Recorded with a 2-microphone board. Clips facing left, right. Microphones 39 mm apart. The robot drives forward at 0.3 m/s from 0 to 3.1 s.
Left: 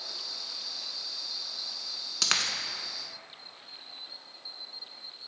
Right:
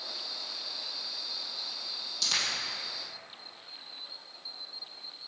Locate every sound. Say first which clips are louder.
2.2 s a dropped coin: left 2 dB; 80° left, 0.7 m